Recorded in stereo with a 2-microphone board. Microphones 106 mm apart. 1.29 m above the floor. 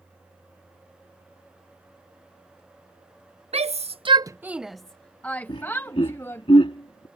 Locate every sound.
3.5 s a shout: 75° right (ahead or behind); by 6.5 s 25° left (ahead or behind)
5.5 s laughter: 55° left (ahead or behind)